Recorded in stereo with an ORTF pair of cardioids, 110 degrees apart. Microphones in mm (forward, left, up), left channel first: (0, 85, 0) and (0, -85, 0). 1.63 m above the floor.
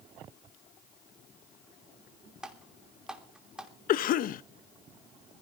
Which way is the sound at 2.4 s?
5° right.